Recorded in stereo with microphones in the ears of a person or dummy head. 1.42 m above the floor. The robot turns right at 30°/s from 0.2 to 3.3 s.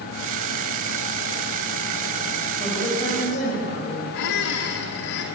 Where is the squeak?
70° left (ahead or behind), 2 m.